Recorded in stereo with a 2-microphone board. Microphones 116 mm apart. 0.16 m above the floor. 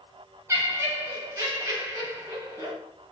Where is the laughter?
25° right (ahead or behind), 1.1 m.